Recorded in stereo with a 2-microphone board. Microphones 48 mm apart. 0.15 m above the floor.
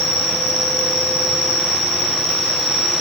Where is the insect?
75° left (ahead or behind), 1.2 m.